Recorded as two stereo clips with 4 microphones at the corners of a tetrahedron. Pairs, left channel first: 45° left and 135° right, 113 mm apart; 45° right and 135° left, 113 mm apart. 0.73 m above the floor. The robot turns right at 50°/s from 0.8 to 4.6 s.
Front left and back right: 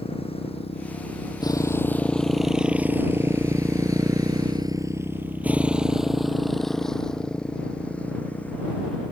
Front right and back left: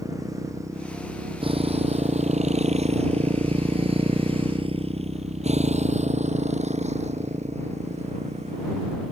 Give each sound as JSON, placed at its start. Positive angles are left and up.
{"t": 0.0, "sound": "a motorcycle", "azimuth_deg": 75}